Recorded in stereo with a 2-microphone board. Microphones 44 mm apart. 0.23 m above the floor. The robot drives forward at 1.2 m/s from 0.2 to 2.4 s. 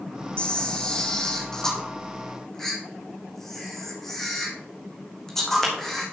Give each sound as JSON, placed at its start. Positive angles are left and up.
{"t": 0.4, "sound": "a camera shutter", "side_deg": 25, "distance_m": 1.6}